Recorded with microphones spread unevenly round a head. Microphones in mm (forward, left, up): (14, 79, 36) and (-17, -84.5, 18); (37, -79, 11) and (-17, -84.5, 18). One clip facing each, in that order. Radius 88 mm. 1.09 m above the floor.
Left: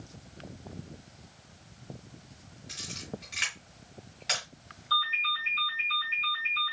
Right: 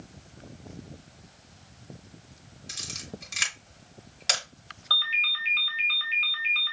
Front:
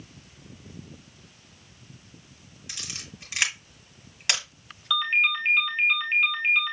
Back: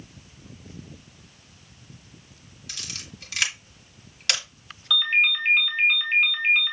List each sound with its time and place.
2.7 s a camera shutter: 65° right, 1.9 m
4.9 s a ringtone: 80° right, 2.5 m